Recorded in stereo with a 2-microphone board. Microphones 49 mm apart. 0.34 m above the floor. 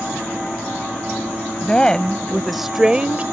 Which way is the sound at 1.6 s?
20° left (ahead or behind).